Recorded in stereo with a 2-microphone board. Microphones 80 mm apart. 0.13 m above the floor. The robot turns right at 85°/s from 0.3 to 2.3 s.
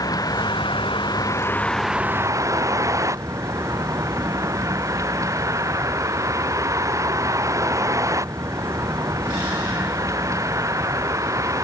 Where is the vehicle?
50° left; by 11.6 s 140° right.